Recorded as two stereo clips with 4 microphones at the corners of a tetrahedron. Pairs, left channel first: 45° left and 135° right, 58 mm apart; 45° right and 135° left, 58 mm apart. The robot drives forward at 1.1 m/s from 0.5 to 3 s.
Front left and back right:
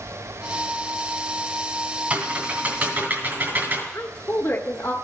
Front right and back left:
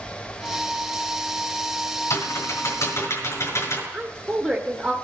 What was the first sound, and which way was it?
Typing on a keyboard, 70° right.